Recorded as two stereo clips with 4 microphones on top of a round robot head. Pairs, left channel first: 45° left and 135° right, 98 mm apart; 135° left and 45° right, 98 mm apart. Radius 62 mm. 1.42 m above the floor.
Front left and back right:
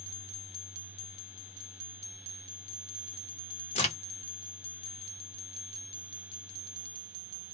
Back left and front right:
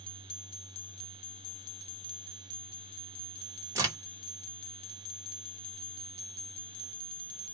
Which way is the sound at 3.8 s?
20° left.